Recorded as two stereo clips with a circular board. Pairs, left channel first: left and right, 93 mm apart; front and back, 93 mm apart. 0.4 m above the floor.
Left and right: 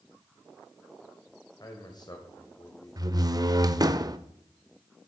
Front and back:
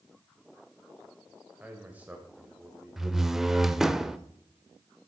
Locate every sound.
1.6 s a man speaking: 110° left, 2.0 m
3.0 s a door slam: 95° right, 0.8 m